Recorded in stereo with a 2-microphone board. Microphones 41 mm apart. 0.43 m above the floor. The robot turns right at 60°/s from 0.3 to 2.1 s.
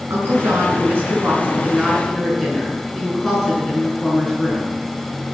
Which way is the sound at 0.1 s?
110° right.